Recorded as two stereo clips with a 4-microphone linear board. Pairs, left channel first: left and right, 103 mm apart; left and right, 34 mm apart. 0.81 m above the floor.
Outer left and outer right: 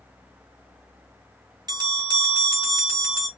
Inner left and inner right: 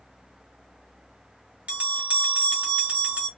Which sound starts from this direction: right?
A bell, at 1.7 s.